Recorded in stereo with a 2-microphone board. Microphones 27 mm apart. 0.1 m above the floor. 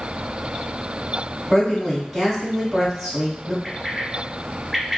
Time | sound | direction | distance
1.5 | a woman speaking | 5° right (ahead or behind) | 1.9 m
3.6 | a bird | 5° right (ahead or behind) | 1.6 m